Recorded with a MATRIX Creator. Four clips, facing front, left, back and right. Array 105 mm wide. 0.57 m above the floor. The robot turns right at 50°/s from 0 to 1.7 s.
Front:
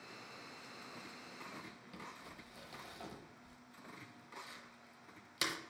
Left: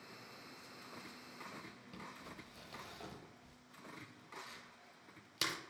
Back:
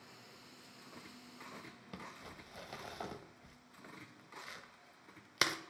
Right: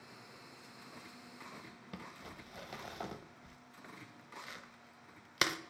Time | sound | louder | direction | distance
1.9 | crumpling | right 3 dB, back 3 dB | 130° right | 0.5 m